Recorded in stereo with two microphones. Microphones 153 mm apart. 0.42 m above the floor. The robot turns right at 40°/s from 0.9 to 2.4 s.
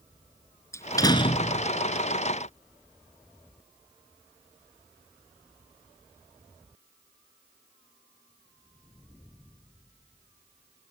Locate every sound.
0.7 s a door slam: 20° left; by 1.7 s 50° left